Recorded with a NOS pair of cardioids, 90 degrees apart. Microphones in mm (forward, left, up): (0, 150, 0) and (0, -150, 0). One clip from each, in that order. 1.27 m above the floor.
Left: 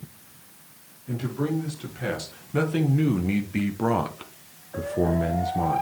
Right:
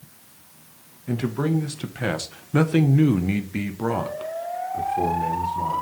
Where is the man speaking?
60° right, 1.7 m; by 5.8 s 60° left, 1.4 m.